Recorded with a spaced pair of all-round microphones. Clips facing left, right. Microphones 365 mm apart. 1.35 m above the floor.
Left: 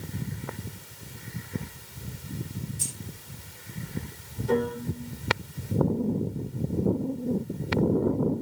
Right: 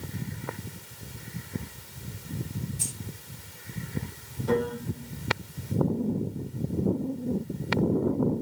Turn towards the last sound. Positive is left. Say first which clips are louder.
# left 1 dB
turn(degrees=-80)